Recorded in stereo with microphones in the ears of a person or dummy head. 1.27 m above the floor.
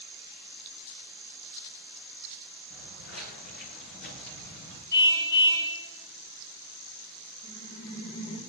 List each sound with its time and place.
2.7 s footsteps: 75° left (ahead or behind), 5 m; by 4.8 s 45° left (ahead or behind), 4 m
4.9 s a car horn: 50° left (ahead or behind), 3 m
7.4 s laughter: 45° left (ahead or behind), 2.0 m